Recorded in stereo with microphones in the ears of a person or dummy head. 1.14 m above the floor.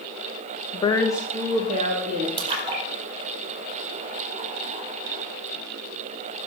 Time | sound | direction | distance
0.7 | a woman speaking | 35° left (ahead or behind) | 0.9 m
2.4 | a splash | 35° right (ahead or behind) | 4.5 m